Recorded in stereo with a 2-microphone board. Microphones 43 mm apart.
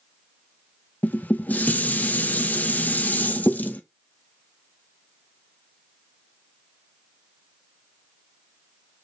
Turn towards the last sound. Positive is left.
turn(degrees=40)  # may be behind; listen again after turning